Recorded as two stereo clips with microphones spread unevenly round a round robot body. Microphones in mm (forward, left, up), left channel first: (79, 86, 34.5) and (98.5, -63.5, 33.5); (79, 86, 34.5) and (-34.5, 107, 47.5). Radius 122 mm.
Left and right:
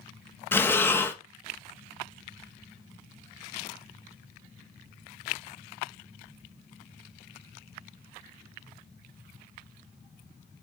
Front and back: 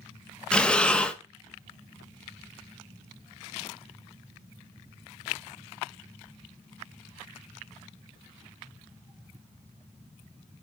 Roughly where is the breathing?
Ahead left.